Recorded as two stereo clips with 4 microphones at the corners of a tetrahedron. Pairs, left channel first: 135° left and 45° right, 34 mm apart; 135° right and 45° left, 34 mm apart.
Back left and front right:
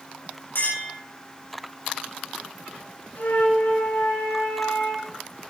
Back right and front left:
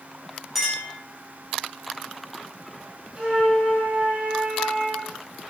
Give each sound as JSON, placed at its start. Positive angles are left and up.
{"t": 0.6, "sound": "a clink", "azimuth_deg": 130, "distance_m": 4.5}
{"t": 3.2, "sound": "a flute", "azimuth_deg": 110, "distance_m": 6.5}